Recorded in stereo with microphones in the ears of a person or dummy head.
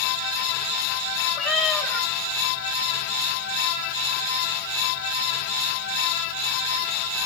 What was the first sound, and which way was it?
A cat meowing, centre (ahead or behind).